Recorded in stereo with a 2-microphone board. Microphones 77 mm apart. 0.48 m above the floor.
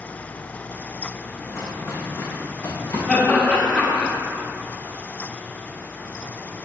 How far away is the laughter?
About 1.4 m.